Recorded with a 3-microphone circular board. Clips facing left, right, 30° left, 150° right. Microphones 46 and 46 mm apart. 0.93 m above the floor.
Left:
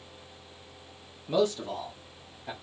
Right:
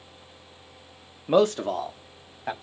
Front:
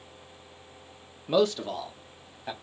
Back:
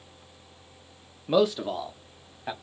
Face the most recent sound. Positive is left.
turn(degrees=-75)